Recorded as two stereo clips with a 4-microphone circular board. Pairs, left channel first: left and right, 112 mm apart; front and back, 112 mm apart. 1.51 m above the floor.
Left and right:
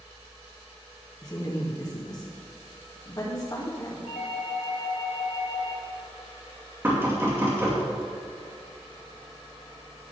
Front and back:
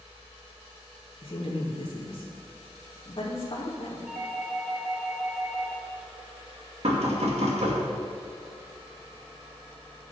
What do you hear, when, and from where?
1.2 s a woman speaking: 35° left, 2 m
4.1 s a doorbell: 100° left, 2.5 m
6.8 s knocking: 160° right, 2.5 m